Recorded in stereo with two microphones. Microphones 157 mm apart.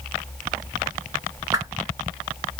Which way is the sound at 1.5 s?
20° right (ahead or behind).